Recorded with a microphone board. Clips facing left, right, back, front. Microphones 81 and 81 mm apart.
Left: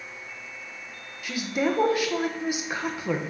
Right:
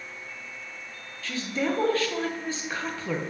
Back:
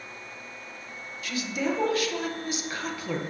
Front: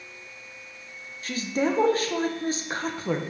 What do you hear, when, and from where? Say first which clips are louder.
1.2 s a woman speaking: left 2 dB, front 3 dB; 25° left, 0.8 m